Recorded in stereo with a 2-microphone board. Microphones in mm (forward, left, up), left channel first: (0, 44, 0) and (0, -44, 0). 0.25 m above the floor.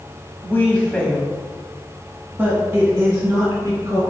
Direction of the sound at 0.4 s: 25° left (ahead or behind).